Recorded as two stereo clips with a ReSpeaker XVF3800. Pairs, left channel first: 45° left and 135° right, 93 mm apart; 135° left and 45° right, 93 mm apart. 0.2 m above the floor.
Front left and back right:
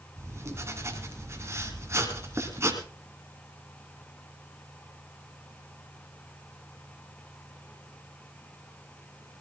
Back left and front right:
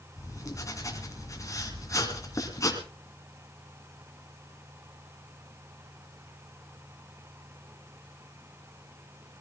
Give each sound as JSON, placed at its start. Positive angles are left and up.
{"t": 0.2, "sound": "writing", "azimuth_deg": 175, "distance_m": 2.5}